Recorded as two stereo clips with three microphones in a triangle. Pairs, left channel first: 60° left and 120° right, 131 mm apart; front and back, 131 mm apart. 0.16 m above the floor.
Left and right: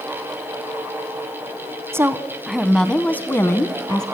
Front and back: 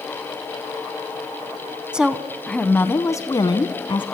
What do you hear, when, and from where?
1.9 s a woman speaking: 110° right, 1.1 m; by 4.0 s 15° left, 1.4 m